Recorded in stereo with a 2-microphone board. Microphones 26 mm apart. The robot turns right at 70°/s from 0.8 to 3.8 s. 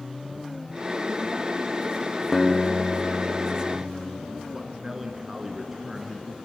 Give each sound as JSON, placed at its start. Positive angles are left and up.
{"t": 2.3, "sound": "a guitar", "azimuth_deg": 175, "distance_m": 3.0}
{"t": 4.5, "sound": "a man speaking", "side_deg": -10, "distance_m": 1.5}